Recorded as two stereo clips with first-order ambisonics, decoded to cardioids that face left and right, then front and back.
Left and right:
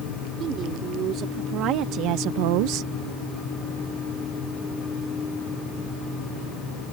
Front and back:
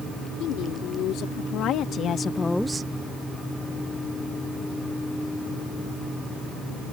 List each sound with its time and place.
0.4 s a woman speaking: 35° right; by 2.9 s 130° right